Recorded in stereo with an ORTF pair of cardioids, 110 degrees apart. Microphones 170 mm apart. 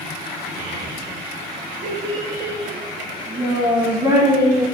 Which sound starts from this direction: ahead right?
A child speaking, at 0.6 s.